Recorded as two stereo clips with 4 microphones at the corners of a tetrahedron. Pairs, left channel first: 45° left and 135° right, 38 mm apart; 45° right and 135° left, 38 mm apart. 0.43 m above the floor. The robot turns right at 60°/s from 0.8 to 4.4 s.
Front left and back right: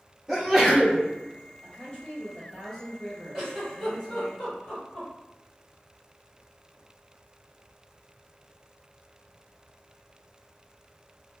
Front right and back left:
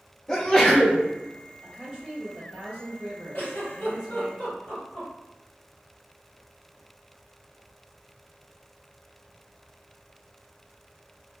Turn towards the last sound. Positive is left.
turn(degrees=-10)